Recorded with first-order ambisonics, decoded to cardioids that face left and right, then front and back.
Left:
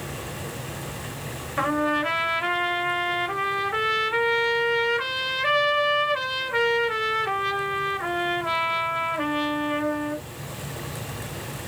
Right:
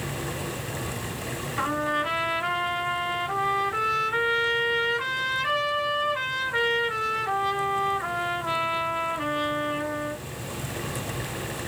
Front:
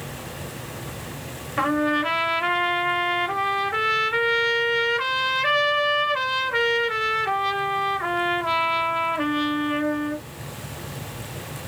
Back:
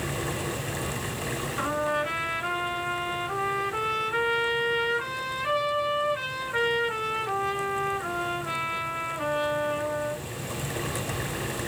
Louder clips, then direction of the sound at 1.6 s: Left 3 dB, front 6 dB; 30° left.